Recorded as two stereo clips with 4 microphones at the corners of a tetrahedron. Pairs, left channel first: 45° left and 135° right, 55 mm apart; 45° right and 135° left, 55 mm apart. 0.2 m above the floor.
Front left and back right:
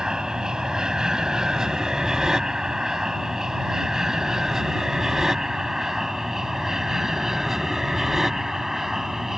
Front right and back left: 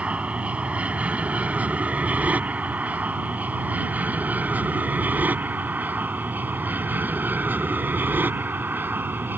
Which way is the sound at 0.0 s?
160° left.